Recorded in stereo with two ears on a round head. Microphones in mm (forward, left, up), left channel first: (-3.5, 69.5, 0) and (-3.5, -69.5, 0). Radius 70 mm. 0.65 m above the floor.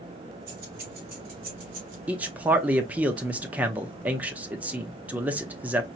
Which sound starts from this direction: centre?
A man speaking, at 2.1 s.